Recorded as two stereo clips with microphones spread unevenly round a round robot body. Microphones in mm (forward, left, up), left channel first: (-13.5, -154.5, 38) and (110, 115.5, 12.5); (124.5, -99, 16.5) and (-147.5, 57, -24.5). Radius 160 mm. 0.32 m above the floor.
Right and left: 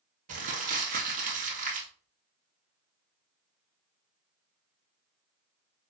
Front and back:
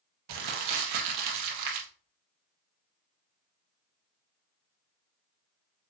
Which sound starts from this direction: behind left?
Crumpling, at 0.3 s.